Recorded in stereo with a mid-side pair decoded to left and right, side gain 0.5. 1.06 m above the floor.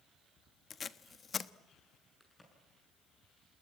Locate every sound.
0.7 s tape being pulled: 35° left, 1.0 m
2.2 s a crack: 15° left, 7 m